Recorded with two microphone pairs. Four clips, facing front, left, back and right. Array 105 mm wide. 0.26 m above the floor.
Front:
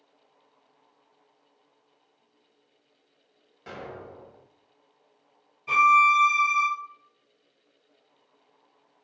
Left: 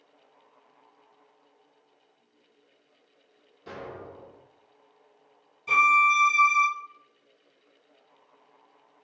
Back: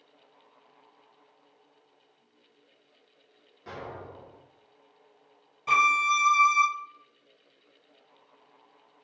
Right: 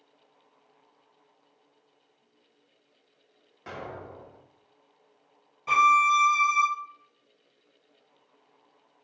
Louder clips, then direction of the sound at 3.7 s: Right 1 dB, even; 75° right.